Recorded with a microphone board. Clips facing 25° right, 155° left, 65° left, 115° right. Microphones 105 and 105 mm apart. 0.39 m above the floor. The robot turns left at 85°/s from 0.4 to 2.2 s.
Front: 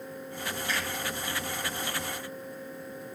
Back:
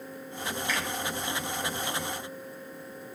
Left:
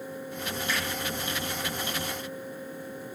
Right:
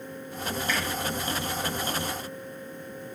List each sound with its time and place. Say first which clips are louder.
0.7 s a finger snap: back 1 dB, right 2 dB; 20° left, 1.5 m; by 0.8 s 5° left, 1.5 m